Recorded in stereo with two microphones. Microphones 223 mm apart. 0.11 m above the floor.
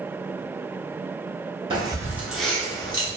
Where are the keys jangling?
25° right (ahead or behind), 0.9 m; by 3.1 s 25° left (ahead or behind), 0.9 m.